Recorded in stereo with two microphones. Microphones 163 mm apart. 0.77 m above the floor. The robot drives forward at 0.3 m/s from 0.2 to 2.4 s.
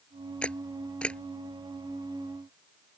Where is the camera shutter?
5° left (ahead or behind).